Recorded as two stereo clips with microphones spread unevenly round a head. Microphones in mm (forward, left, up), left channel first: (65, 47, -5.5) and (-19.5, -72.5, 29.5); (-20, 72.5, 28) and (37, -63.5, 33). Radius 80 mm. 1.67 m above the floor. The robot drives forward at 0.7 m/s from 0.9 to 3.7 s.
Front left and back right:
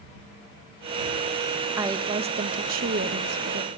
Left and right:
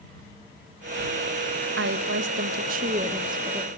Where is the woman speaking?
55° right, 0.9 m; by 3.7 s 140° right, 1.1 m.